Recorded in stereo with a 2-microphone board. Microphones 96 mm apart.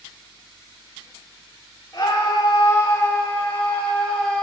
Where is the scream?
40° left (ahead or behind), 2.0 m; by 4.4 s 5° left (ahead or behind), 2.5 m.